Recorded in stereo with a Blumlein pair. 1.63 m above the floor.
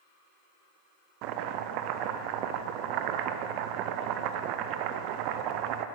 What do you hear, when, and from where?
1.2 s chopping: 40° right, 0.6 m